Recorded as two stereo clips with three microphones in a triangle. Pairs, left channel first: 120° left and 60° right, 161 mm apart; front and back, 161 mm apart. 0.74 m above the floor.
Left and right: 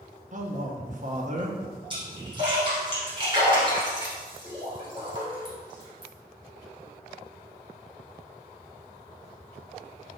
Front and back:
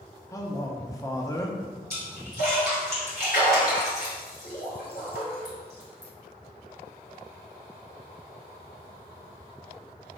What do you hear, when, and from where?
0.3 s a man speaking: 65° right, 0.9 m
1.9 s a splash: 5° right, 2.5 m